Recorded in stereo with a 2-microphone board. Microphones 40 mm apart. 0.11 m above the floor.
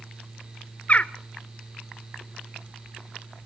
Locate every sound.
0.9 s a bird: 35° left (ahead or behind), 0.6 m